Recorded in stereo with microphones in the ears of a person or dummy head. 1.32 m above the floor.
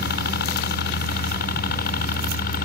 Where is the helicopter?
55° left (ahead or behind); by 2.7 s 50° left (ahead or behind).